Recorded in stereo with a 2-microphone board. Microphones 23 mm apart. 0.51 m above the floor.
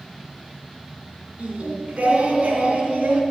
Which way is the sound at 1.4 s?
75° right (ahead or behind).